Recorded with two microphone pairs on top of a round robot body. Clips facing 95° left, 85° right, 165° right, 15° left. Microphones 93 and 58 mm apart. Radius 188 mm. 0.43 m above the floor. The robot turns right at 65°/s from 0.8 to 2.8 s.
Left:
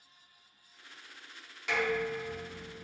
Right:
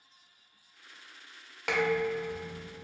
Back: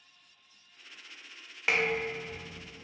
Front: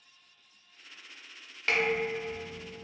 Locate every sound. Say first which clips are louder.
1.7 s dishes clattering: right 3 dB, front 1 dB; 90° right, 0.9 m; by 2.8 s 20° right, 0.9 m